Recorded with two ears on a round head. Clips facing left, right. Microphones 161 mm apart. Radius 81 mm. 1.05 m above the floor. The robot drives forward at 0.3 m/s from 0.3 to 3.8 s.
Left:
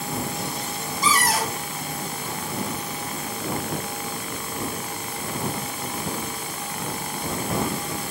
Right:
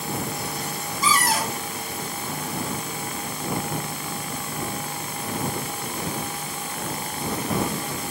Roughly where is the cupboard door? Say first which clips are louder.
Even; left.